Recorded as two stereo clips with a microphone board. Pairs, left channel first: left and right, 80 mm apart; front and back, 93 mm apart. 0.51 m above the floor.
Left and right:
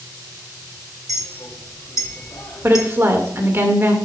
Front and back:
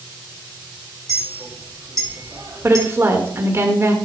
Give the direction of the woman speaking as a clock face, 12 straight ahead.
4 o'clock.